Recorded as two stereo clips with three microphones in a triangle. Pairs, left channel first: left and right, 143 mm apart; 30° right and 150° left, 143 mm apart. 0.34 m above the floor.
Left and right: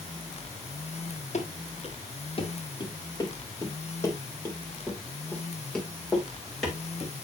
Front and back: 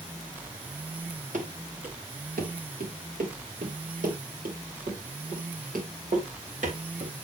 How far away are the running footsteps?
About 2.5 m.